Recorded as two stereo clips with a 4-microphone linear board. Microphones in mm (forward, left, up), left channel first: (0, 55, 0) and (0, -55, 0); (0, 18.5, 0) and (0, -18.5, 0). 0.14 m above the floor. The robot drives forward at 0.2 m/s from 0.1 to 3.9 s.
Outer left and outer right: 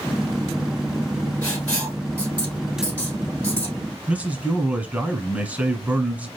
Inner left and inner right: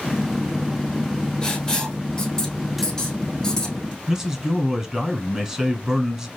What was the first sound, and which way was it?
Writing, 15° left (ahead or behind).